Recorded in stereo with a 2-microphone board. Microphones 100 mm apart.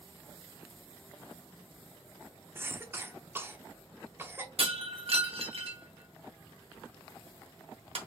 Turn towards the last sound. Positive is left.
turn(degrees=-70)  # may be behind; listen again after turning